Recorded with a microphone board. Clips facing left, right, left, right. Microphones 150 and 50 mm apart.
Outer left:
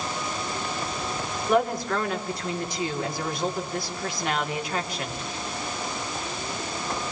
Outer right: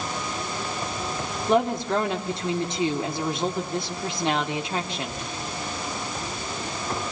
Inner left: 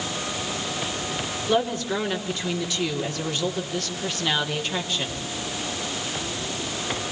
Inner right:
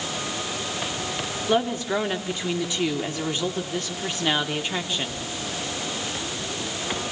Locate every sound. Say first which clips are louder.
1.5 s a woman speaking: outer right 1 dB, inner right 1 dB; 25° right (ahead or behind), 3 m